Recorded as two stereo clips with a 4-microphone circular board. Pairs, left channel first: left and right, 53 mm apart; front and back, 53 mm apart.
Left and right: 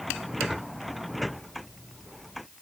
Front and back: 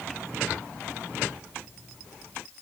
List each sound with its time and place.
Only background noise.